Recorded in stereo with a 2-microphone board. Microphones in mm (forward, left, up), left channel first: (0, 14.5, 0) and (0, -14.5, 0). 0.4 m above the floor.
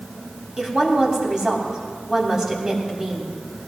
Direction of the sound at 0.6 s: 25° right (ahead or behind).